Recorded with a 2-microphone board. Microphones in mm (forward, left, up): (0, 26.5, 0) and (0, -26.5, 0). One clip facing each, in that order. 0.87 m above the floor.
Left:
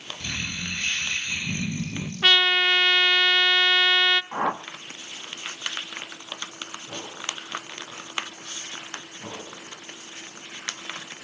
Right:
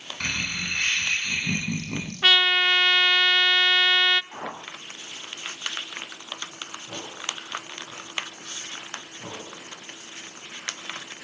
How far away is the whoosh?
About 1.3 m.